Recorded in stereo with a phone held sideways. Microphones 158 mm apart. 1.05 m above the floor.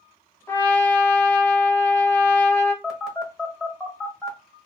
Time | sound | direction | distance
0.5 | a trumpet | 15° left (ahead or behind) | 0.8 m
2.8 | a phone buzzing | centre (ahead or behind) | 1.1 m